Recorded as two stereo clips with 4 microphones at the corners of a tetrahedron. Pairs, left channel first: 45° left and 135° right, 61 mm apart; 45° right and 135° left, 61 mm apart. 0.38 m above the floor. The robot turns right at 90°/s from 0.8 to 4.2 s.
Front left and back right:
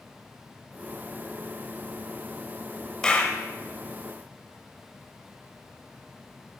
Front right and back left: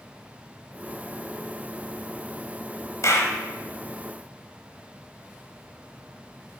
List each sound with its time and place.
3.0 s a clap: 30° right, 1.3 m; by 3.4 s straight ahead, 1.3 m